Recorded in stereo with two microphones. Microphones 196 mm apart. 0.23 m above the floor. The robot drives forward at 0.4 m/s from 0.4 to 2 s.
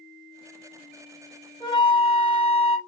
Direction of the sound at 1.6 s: 25° left (ahead or behind).